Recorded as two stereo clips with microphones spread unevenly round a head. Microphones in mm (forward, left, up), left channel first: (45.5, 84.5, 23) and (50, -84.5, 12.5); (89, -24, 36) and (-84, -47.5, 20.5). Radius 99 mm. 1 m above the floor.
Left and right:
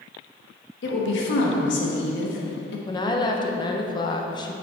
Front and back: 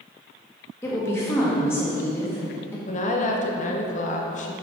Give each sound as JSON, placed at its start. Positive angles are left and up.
{"t": 0.8, "sound": "a woman speaking", "azimuth_deg": 85, "distance_m": 1.5}
{"t": 2.9, "sound": "a woman speaking", "azimuth_deg": 35, "distance_m": 1.0}